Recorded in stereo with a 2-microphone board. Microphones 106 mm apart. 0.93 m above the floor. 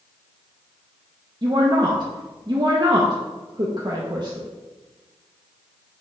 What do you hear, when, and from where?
1.4 s a woman speaking: 40° right (ahead or behind), 0.9 m